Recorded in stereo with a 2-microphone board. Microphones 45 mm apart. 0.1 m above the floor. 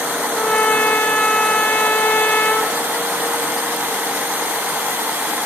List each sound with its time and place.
0.3 s a trumpet: 30° left (ahead or behind), 2 m